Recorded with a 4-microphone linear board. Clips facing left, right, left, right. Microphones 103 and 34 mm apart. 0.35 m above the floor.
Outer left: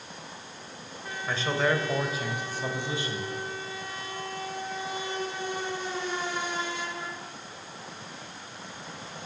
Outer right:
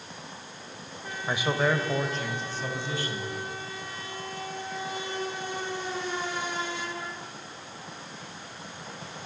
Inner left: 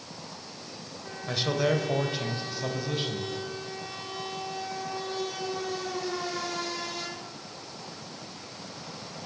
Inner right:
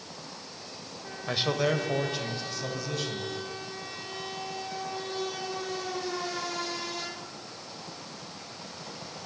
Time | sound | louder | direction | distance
1.3 | a man speaking | outer right 1 dB, inner left 1 dB | 15° right (ahead or behind) | 1.7 m